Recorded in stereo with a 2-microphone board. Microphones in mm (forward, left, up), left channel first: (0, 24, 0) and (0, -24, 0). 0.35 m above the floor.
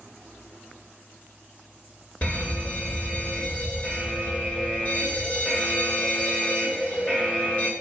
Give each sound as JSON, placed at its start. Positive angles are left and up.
{"t": 2.2, "sound": "a fire alarm", "side_deg": 30, "distance_m": 2.0}